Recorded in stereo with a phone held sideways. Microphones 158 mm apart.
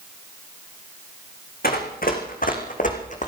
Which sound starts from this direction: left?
Running footsteps, at 1.6 s.